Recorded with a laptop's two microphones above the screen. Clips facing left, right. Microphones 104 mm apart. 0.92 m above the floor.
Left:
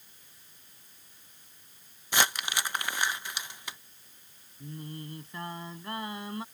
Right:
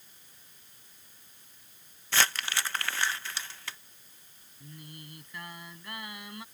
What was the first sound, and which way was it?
Crumpling, 15° left (ahead or behind).